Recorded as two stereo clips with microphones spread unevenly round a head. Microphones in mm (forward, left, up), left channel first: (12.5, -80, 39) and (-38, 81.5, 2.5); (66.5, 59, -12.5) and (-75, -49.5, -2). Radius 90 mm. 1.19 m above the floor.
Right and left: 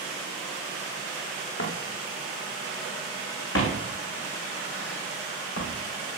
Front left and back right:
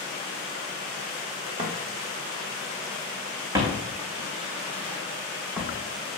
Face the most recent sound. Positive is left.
turn(degrees=-60)